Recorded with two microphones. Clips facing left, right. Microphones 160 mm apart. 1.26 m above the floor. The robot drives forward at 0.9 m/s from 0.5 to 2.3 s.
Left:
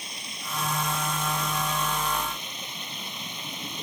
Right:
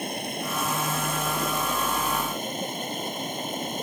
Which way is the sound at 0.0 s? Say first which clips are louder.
Right 12 dB; 55° right (ahead or behind).